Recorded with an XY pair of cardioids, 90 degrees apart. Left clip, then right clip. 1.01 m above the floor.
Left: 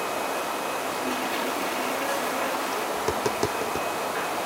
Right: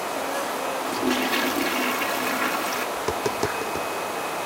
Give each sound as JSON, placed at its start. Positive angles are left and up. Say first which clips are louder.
{"t": 0.8, "sound": "a toilet flushing", "louder": "right 3 dB", "azimuth_deg": -65}
{"t": 3.0, "sound": "tapping", "louder": "even", "azimuth_deg": 0}